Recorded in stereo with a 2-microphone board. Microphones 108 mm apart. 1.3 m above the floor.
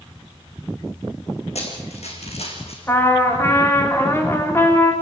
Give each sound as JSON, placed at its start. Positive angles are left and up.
{"t": 1.6, "sound": "running footsteps", "side_deg": 75, "distance_m": 5.0}
{"t": 2.9, "sound": "a trumpet", "side_deg": 20, "distance_m": 3.0}